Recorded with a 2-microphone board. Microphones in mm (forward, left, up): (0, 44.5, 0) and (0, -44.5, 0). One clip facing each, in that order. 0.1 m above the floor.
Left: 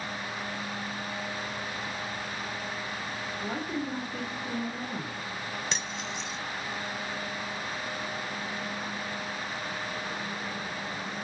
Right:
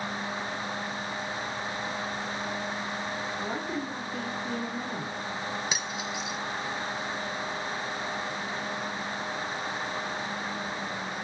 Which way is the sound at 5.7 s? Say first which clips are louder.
Right 2 dB; 5° right (ahead or behind).